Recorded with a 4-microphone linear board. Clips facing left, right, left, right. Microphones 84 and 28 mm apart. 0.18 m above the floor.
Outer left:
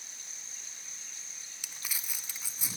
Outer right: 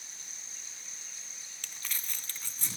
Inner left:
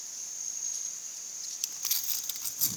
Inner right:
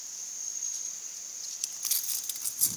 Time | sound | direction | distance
1.6 | crumpling | 10° left (ahead or behind) | 1.0 m